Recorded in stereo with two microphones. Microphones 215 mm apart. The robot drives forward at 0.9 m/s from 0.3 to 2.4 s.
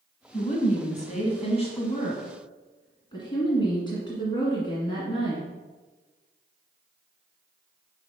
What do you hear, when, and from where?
0.3 s a woman speaking: 30° left (ahead or behind), 1.3 m; by 5.5 s 20° left (ahead or behind), 1.9 m